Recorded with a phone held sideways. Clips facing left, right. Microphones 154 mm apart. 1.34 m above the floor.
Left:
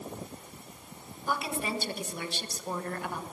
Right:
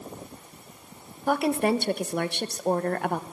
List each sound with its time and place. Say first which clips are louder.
1.3 s a woman speaking: right 10 dB; 60° right (ahead or behind), 1.3 m